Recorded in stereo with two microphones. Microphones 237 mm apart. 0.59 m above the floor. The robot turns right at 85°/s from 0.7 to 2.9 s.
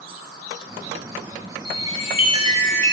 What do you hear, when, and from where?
1.6 s a chime: 90° right, 1.0 m; by 2.9 s 15° left, 1.0 m